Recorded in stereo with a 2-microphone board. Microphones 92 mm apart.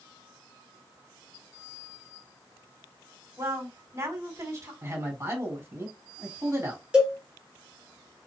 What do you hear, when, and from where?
3.4 s a woman speaking: 35° right (ahead or behind), 1.9 m
4.8 s a man speaking: 30° right (ahead or behind), 2.5 m
6.9 s a cowbell: 10° right (ahead or behind), 2.5 m